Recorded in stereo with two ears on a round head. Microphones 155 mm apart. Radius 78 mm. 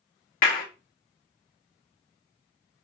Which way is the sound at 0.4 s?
45° left (ahead or behind).